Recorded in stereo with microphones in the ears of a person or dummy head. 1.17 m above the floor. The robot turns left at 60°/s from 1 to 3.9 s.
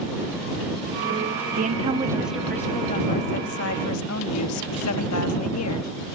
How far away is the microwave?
No microwave in this recording.